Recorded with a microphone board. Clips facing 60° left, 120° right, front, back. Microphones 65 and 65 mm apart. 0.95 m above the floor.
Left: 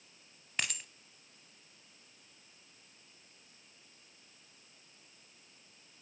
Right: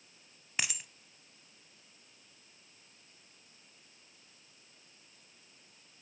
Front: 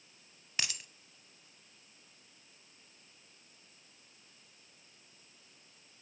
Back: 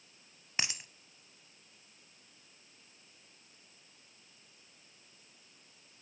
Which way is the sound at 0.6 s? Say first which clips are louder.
Even, back 2 dB; 165° left.